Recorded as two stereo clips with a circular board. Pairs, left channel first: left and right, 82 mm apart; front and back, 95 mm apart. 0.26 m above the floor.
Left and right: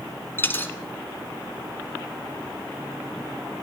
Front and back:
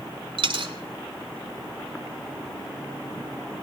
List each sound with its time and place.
0.4 s a dropped coin: 155° left, 0.8 m